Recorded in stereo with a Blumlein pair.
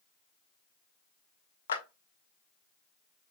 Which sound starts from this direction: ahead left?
A clap, at 1.7 s.